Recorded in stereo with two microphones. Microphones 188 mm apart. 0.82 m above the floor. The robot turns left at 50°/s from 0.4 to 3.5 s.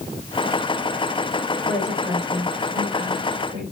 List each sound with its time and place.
1.6 s a woman speaking: 55° left, 3 m; by 3.6 s 40° right, 3 m